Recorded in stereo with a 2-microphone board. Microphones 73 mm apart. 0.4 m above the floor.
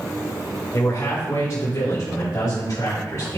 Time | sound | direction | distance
0.7 | a man speaking | 45° left (ahead or behind) | 2.0 m